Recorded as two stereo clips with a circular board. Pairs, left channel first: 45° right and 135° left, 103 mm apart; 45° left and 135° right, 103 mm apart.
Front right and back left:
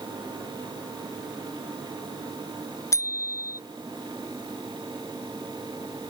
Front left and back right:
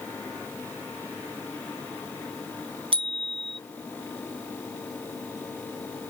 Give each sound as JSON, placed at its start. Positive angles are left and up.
{"t": 2.9, "sound": "a bicycle bell", "azimuth_deg": -105}